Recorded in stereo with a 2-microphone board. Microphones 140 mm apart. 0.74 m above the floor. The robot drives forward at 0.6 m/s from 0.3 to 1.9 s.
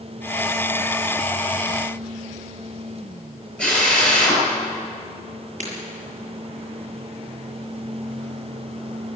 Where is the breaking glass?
60° right (ahead or behind), 7 m.